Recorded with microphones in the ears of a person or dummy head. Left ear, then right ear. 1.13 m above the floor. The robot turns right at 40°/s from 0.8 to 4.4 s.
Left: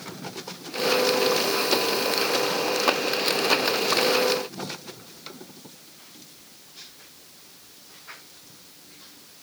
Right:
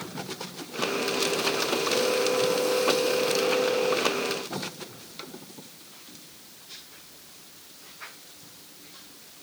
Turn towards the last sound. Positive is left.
No sound to turn to.